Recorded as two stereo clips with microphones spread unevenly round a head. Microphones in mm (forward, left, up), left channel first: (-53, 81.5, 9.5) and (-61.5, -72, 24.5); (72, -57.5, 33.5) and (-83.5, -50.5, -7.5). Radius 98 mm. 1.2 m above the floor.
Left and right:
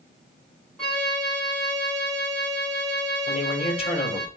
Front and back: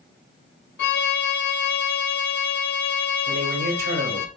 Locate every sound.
0.8 s a violin: straight ahead, 4 m
3.3 s a man speaking: 140° left, 5.5 m